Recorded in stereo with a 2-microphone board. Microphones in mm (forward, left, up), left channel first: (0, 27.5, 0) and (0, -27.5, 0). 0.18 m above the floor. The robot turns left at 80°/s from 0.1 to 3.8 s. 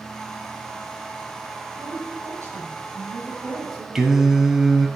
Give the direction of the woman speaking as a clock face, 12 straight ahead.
1 o'clock.